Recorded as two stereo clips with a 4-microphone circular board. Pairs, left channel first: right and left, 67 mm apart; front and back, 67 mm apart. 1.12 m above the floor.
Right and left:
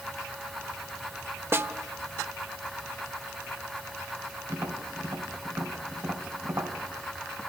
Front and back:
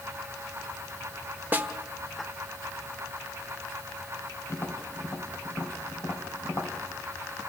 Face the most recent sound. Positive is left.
turn(degrees=50)